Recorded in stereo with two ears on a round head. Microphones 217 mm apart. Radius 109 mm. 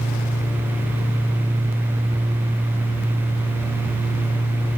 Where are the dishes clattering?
No dishes clattering in this recording.